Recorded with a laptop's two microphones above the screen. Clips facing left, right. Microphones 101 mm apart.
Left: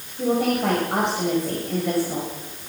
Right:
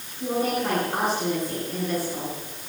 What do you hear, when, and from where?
0.2 s a woman speaking: 85° left, 6 m